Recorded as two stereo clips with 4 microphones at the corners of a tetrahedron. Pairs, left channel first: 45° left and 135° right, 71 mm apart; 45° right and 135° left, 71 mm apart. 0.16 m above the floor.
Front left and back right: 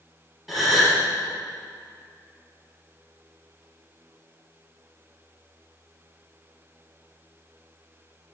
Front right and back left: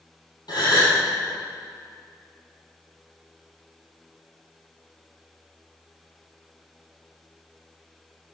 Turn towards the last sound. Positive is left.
turn(degrees=-45)